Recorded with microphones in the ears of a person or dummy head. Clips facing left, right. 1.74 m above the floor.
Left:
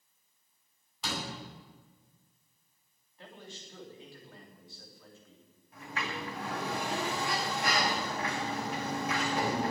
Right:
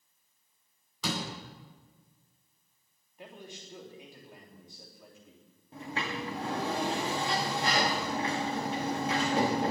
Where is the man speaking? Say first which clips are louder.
Right 2 dB; 15° right (ahead or behind), 3.5 m.